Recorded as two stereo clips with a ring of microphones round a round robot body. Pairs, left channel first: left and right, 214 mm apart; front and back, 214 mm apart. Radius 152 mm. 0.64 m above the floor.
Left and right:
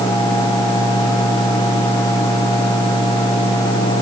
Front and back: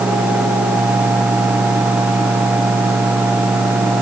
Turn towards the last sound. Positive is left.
No sound to turn to.